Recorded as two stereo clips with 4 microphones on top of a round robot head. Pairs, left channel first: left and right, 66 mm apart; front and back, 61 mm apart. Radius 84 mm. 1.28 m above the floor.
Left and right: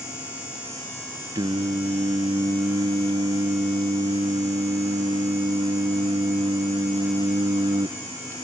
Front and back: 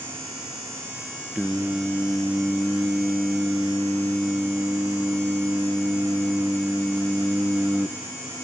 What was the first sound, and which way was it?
Singing, 105° right.